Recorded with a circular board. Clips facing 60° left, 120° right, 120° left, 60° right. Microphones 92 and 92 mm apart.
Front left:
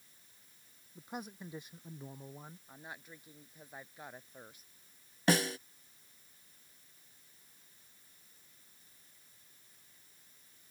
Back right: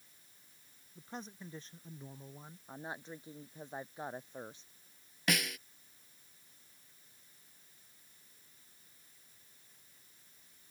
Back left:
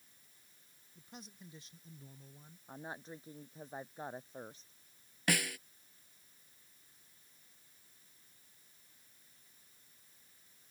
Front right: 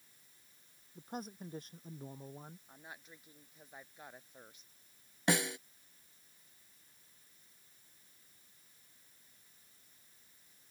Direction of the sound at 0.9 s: 20° right.